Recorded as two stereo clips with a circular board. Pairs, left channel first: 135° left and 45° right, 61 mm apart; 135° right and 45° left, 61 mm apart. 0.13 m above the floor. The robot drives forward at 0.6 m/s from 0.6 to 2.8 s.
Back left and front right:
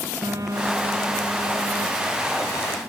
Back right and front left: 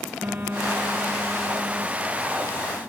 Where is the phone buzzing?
15° right.